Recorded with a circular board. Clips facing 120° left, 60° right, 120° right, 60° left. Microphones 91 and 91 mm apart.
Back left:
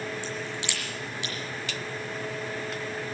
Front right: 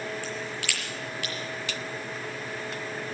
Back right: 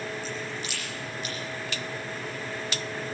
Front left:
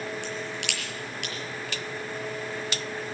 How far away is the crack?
About 6 m.